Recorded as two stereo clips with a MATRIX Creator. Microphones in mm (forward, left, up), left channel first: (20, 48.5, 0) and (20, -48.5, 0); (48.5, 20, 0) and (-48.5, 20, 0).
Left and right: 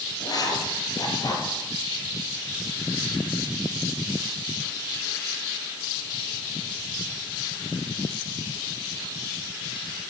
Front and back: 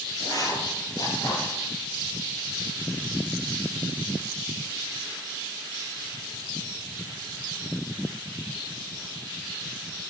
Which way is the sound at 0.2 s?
45° left.